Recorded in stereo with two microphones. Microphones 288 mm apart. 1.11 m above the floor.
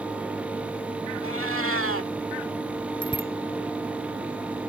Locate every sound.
1.2 s a cat meowing: 50° right (ahead or behind)
3.0 s a bicycle bell: 15° left (ahead or behind)